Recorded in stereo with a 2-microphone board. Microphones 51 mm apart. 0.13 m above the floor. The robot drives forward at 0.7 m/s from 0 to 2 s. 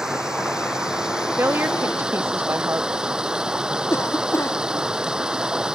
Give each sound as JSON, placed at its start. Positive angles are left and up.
{"t": 0.0, "sound": "running water", "side_deg": -10}
{"t": 1.4, "sound": "a woman speaking", "side_deg": -50}
{"t": 3.9, "sound": "a cough", "side_deg": 60}